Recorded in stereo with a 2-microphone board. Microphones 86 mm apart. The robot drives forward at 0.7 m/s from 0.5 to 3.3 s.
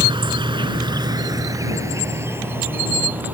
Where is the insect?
70° right (ahead or behind); by 3.3 s 20° right (ahead or behind).